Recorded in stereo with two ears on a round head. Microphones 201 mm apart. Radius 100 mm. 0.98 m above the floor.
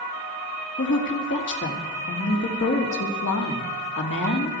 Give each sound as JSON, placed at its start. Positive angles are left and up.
{"t": 0.8, "sound": "a woman speaking", "side_deg": 55, "distance_m": 2.0}